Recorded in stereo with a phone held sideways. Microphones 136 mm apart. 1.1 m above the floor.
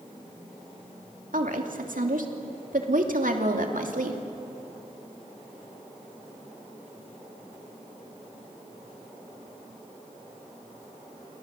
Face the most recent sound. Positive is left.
turn(degrees=-75)  # may be behind; listen again after turning